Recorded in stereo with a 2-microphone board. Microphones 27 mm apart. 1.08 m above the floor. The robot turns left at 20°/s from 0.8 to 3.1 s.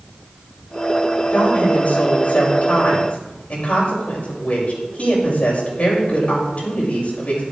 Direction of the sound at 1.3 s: 90° left.